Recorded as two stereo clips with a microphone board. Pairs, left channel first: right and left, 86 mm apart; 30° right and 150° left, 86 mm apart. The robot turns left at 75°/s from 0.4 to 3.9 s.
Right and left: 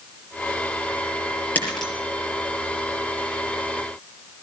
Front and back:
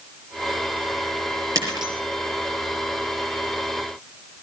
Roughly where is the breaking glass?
Behind.